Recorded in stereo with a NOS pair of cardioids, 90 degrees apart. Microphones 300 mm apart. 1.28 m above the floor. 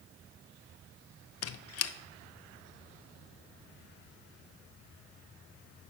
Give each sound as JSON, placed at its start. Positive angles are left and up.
{"t": 1.4, "sound": "a squeak", "azimuth_deg": 55, "distance_m": 0.5}